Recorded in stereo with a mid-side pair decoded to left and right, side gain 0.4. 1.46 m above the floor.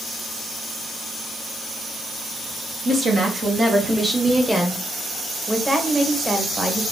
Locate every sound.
2.9 s a woman speaking: 55° right, 1.2 m; by 4.8 s 10° right, 1.3 m
5.5 s a woman speaking: 20° right, 1.4 m